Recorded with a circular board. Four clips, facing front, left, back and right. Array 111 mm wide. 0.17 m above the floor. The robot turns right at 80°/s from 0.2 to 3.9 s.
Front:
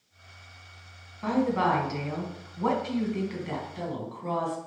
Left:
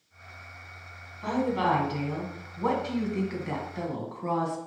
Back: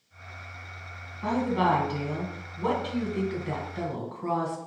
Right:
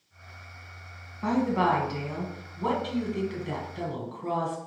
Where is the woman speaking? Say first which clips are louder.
Right 2 dB, even; 80° right, 1.3 m; by 4.6 s 135° left, 1.3 m.